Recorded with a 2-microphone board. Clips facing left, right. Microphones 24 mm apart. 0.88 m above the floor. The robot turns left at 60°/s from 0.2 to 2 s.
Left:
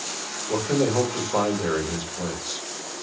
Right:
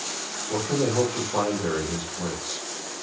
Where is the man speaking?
120° left, 1.3 m; by 2.7 s 25° left, 1.3 m.